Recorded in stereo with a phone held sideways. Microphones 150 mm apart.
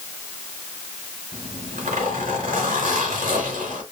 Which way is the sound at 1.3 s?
75° right (ahead or behind).